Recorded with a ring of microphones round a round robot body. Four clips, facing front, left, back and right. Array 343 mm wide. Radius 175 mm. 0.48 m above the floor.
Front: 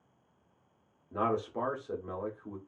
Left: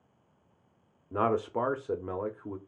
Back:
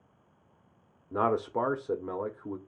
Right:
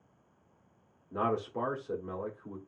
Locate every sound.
1.1 s a man speaking: 135° left, 0.9 m